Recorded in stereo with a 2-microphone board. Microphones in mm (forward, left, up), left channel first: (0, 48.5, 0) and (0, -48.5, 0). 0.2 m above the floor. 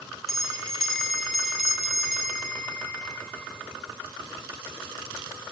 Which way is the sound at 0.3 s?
5° left (ahead or behind).